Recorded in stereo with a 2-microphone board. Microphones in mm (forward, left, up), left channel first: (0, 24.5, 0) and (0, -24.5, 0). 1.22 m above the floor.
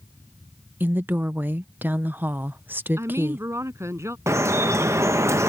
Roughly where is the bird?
I don't hear a bird.